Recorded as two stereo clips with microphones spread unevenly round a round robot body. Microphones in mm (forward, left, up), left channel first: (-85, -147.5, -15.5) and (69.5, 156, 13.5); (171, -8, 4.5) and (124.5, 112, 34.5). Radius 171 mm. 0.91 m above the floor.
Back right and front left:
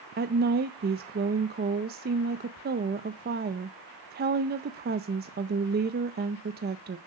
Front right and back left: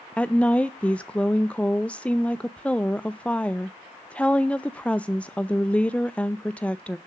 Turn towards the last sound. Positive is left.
turn(degrees=0)